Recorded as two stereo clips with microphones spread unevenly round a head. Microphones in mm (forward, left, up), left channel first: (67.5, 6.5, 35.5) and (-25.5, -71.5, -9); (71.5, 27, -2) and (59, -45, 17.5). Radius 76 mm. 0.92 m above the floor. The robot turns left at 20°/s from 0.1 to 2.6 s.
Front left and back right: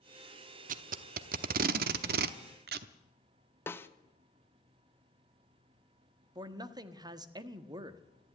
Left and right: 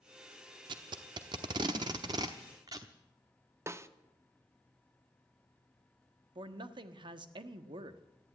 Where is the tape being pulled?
120° right, 0.8 m; by 2.9 s 155° right, 0.8 m.